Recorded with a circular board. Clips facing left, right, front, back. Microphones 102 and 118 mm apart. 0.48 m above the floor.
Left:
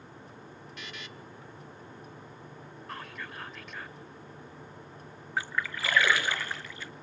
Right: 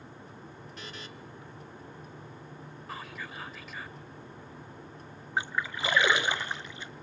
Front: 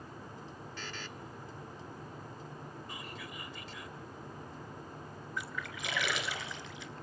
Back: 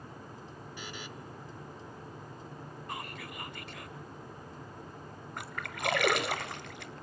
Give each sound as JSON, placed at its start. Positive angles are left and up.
{"t": 0.8, "sound": "a buzzer", "azimuth_deg": -110, "distance_m": 1.1}
{"t": 2.9, "sound": "whispering", "azimuth_deg": 180, "distance_m": 1.6}
{"t": 5.4, "sound": "a splash", "azimuth_deg": -160, "distance_m": 1.0}